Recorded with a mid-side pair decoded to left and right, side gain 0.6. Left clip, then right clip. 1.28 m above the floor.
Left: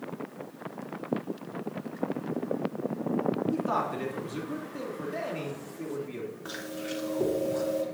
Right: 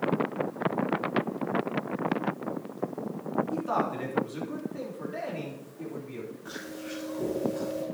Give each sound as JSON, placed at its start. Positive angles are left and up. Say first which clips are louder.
{"t": 3.5, "sound": "a man speaking", "louder": "even", "azimuth_deg": 15, "distance_m": 3.0}
{"t": 6.5, "sound": "chewing", "louder": "left 3 dB", "azimuth_deg": 45, "distance_m": 4.0}